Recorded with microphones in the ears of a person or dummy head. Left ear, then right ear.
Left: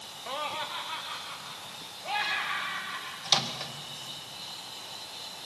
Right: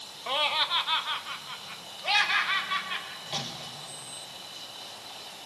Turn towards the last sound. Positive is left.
turn(degrees=55)  # may be behind; listen again after turning